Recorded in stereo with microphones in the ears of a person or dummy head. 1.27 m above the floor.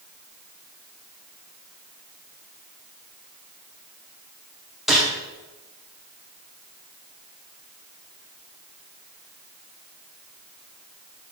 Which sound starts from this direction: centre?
A gunshot, at 4.9 s.